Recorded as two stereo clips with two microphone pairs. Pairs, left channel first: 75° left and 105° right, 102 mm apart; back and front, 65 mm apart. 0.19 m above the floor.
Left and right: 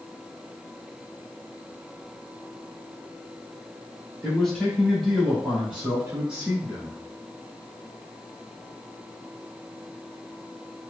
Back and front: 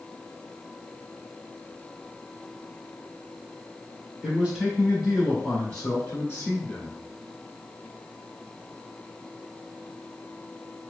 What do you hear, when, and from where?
4.2 s a man speaking: 15° left, 1.5 m; by 7.0 s 165° right, 1.7 m